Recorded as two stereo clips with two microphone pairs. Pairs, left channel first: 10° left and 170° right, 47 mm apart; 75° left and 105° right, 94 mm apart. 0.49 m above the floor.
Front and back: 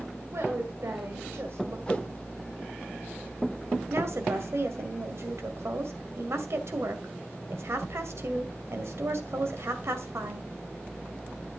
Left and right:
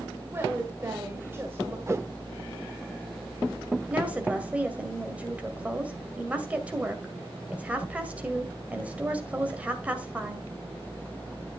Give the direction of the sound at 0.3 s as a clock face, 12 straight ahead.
5 o'clock.